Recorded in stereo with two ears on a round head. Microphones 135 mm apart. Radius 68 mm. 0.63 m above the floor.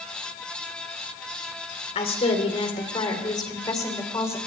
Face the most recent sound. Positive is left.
turn(degrees=20)  # may be behind; listen again after turning